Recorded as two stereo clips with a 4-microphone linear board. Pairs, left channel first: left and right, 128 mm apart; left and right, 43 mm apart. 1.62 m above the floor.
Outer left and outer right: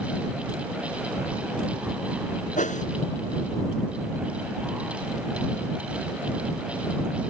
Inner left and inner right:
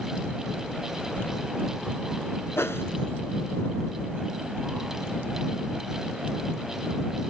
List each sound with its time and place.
1.2 s keys jangling: 60° left (ahead or behind)
2.6 s a whoosh: 80° left